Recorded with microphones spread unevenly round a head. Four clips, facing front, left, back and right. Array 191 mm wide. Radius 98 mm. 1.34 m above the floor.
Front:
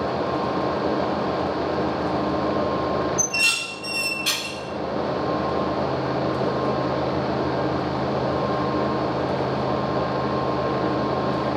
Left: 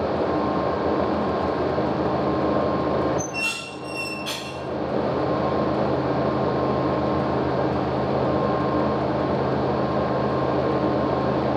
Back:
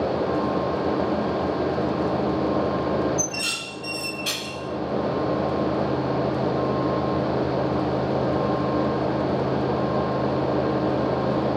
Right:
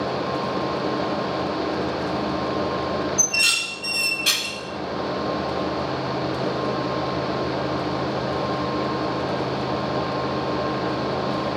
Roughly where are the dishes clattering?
Behind right.